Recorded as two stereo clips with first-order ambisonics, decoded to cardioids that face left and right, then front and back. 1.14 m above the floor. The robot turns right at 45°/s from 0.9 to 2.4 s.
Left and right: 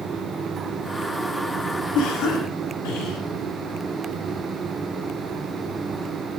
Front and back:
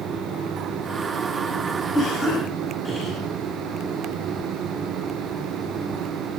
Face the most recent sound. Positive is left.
turn(degrees=80)